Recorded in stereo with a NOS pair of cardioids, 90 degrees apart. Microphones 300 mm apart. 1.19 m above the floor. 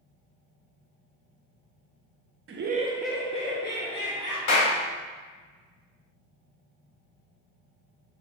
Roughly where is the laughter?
Ahead right.